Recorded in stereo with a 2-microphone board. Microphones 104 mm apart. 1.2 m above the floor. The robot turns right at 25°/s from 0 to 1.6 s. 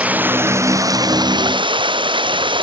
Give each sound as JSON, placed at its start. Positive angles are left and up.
{"t": 0.0, "sound": "running water", "azimuth_deg": -170}